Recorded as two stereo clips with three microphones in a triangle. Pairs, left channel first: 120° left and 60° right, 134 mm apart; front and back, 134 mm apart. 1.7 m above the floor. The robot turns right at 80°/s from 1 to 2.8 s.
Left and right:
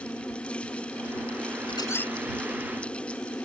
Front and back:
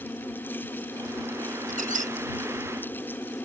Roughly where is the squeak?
Behind.